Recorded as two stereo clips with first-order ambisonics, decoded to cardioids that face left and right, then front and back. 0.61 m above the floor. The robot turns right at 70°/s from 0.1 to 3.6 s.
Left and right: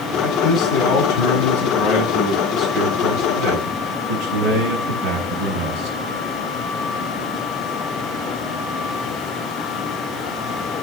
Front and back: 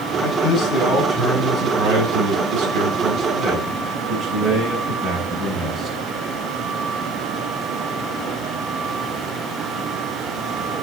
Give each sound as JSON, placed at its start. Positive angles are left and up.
{"t": 0.2, "sound": "a man speaking", "azimuth_deg": 25, "distance_m": 5.5}